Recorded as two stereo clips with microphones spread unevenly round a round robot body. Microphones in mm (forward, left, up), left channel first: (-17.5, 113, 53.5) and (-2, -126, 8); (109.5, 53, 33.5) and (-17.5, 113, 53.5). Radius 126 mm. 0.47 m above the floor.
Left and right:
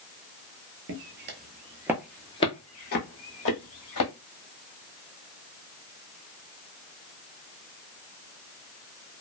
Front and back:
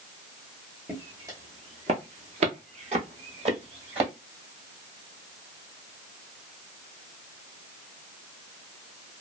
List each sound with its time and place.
0.9 s footsteps: 125° right, 0.7 m; by 4.1 s 115° left, 1.2 m